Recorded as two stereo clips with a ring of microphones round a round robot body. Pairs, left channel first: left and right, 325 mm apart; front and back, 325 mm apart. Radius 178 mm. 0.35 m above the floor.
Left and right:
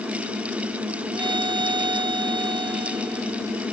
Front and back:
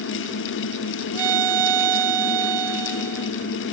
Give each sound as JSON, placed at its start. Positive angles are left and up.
{"t": 1.1, "sound": "a violin", "azimuth_deg": -170}